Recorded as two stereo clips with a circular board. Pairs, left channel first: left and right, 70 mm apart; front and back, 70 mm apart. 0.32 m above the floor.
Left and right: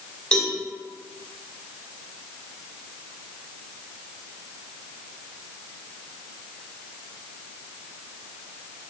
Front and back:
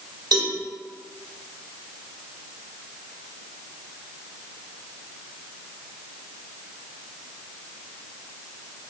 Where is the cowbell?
165° left, 1.3 m.